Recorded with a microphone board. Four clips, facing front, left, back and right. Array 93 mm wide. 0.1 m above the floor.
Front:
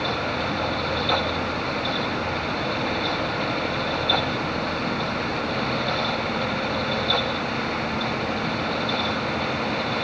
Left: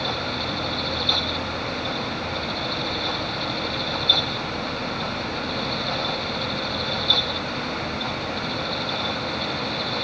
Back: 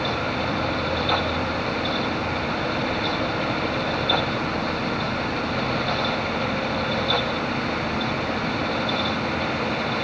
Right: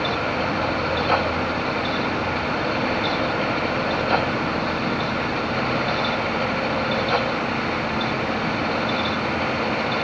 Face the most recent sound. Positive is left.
No sound to turn to.